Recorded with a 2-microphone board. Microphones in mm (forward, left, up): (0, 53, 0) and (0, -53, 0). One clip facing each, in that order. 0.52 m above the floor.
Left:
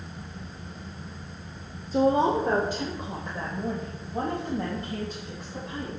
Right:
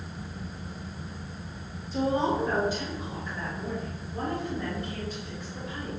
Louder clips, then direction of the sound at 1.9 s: Left 5 dB; 45° left (ahead or behind).